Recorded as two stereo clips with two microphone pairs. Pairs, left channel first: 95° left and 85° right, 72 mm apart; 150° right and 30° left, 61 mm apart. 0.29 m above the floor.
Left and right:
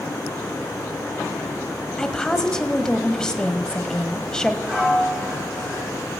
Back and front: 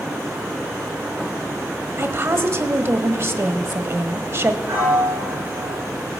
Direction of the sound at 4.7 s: 15° right.